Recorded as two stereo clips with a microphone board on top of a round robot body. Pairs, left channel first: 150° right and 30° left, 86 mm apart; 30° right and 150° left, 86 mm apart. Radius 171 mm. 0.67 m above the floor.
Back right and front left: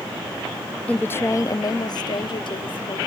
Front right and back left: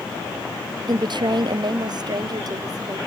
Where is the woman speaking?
135° left; by 3.0 s 165° right.